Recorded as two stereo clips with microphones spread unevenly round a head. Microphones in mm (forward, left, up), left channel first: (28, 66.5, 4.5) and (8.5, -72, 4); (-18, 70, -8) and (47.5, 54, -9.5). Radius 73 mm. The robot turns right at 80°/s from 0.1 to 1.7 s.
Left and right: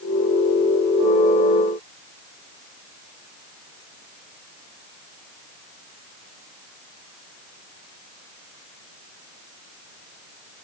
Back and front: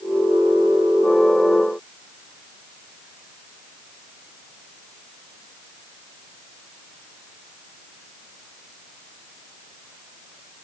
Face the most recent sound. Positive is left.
No sound to turn to.